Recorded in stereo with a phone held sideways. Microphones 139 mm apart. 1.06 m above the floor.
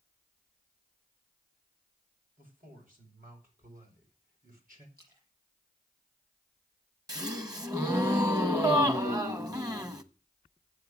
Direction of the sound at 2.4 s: 80° right.